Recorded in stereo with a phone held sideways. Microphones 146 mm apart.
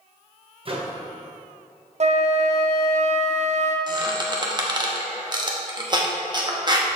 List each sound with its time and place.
0.7 s a microwave: 40° right (ahead or behind), 0.9 m
2.0 s a flute: 50° right (ahead or behind), 0.6 m
3.9 s a squeak: 30° right (ahead or behind), 0.9 m